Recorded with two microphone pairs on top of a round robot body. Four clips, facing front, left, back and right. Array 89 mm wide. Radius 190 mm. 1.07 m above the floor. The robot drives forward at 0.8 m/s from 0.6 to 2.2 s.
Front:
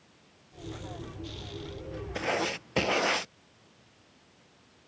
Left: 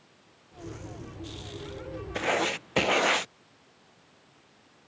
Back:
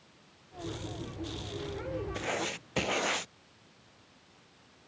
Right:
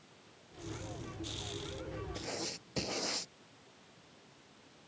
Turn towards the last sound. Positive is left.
turn(degrees=80)